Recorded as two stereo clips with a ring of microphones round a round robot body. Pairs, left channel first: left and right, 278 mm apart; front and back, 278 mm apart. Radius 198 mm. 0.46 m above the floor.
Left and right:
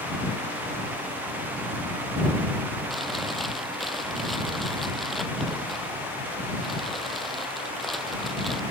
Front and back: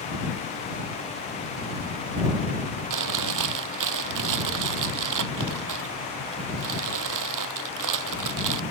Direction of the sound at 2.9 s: Straight behind.